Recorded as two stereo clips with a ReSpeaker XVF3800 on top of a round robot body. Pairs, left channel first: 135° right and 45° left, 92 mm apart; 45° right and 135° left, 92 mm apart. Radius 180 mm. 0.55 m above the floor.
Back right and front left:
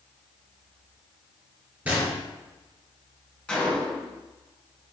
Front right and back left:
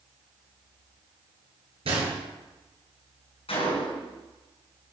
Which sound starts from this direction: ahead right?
A gunshot, at 3.5 s.